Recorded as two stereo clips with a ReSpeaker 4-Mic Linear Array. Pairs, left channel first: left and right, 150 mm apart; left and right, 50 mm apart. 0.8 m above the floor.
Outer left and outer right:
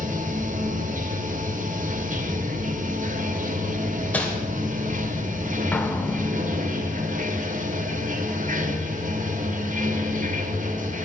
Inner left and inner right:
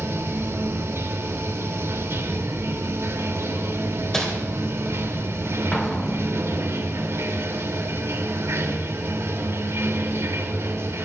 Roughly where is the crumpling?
Centre.